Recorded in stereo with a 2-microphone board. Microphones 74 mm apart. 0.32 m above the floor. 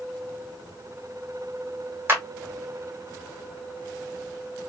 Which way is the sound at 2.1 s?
30° right (ahead or behind).